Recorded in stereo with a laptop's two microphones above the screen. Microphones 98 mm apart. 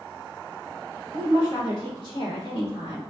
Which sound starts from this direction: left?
A woman speaking, at 1.1 s.